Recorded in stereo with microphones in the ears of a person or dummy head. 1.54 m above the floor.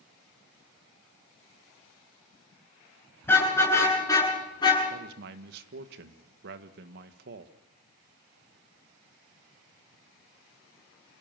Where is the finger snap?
No finger snap in this recording.